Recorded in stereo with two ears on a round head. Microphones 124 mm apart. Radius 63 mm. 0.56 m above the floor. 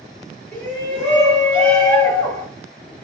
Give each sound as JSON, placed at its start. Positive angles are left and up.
{"t": 0.5, "sound": "a shout", "side_deg": 25, "distance_m": 1.6}